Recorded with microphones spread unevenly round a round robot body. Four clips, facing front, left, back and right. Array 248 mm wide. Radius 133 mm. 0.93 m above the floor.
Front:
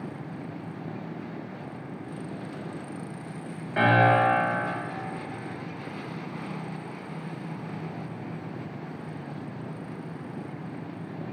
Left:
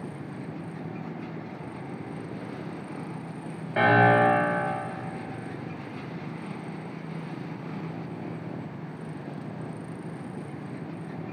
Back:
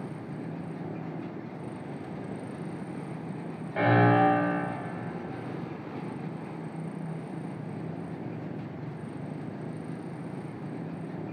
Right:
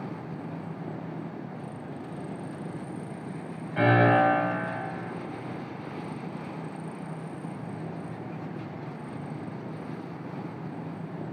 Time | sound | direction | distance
3.8 | a piano | 60° left | 2.0 m